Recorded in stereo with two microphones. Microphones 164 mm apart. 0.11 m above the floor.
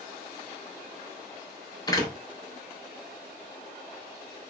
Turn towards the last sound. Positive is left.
turn(degrees=25)  # may be behind; listen again after turning